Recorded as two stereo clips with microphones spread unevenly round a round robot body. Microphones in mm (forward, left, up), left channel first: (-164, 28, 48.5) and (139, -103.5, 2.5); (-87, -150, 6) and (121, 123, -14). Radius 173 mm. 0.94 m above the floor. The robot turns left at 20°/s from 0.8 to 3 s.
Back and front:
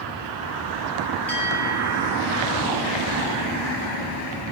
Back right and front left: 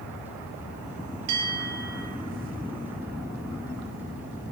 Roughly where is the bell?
Left.